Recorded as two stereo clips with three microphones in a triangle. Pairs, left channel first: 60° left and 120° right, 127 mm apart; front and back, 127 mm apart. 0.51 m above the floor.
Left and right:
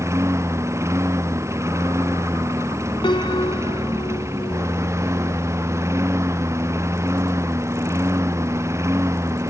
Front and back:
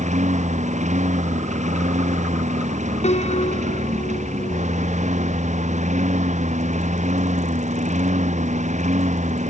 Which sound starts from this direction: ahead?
A piano, at 3.0 s.